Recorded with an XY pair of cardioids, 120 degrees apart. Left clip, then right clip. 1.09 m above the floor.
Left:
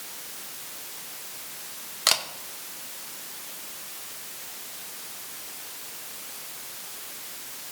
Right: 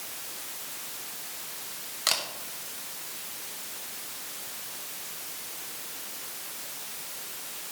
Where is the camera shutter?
30° left, 1.1 m.